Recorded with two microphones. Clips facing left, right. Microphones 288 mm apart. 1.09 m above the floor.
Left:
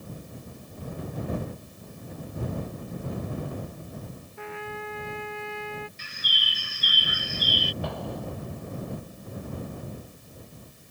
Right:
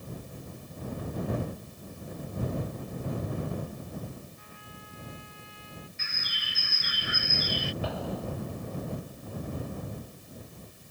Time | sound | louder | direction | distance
4.4 | a trumpet | left 14 dB | 80° left | ?
6.0 | a bird | left 1 dB | 40° left (ahead or behind) | ?
7.8 | an explosion | even | centre (ahead or behind) | ?